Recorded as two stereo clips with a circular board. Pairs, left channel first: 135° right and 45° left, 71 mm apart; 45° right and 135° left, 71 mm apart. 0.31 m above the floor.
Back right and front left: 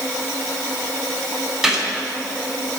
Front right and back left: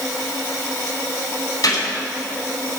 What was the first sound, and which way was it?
A gunshot, 40° right.